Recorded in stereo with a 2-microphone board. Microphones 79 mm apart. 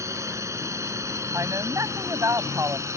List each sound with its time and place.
0.0 s a drone: 40° right (ahead or behind)
1.3 s a woman speaking: 40° right (ahead or behind)